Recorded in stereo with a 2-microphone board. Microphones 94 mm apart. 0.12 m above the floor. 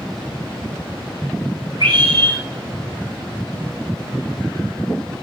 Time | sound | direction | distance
1.8 | a scream | 50° right (ahead or behind) | 8.5 m